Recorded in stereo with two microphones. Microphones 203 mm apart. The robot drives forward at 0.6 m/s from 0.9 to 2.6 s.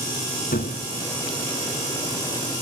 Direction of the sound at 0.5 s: 50° left (ahead or behind).